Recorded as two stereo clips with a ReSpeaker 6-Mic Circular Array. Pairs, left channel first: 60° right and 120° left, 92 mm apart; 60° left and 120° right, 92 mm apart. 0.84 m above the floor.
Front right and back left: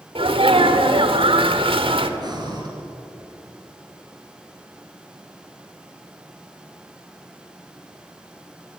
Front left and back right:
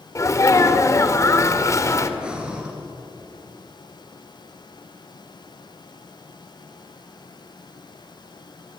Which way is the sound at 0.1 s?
115° left.